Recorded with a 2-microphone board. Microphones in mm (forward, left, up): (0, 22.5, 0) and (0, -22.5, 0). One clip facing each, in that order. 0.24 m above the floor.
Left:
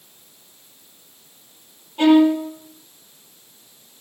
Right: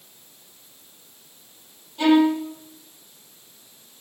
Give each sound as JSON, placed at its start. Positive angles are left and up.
{"t": 2.0, "sound": "a violin", "side_deg": 40, "distance_m": 6.0}